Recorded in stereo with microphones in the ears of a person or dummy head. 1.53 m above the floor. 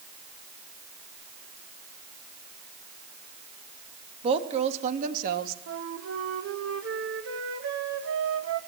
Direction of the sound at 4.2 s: 40° right (ahead or behind).